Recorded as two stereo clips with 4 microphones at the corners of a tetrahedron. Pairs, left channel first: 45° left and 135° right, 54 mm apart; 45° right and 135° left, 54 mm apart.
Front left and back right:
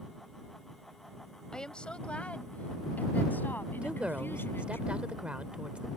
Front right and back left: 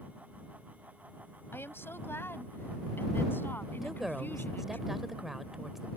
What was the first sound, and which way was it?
A woman speaking, 25° right.